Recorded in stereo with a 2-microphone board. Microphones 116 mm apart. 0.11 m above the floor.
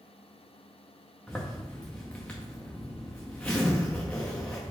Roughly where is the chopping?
I don't hear chopping.